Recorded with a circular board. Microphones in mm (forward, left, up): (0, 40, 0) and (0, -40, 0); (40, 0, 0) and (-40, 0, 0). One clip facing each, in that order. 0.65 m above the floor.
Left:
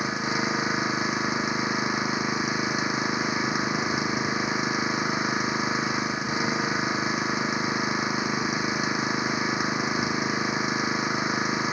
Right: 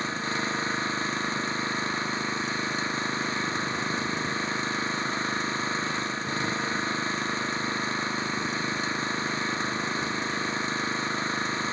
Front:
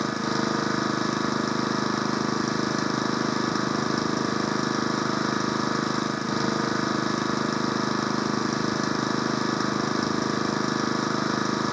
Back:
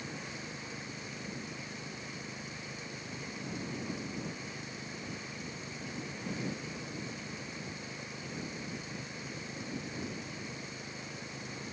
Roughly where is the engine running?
Ahead.